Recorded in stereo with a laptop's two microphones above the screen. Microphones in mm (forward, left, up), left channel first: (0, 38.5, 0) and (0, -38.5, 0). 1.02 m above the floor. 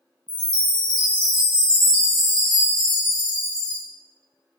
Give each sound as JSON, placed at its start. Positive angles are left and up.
{"t": 0.3, "sound": "a chime", "side_deg": 70, "distance_m": 0.8}